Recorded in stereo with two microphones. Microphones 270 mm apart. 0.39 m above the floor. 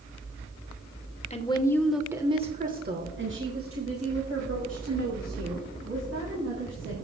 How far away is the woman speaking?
About 1.0 m.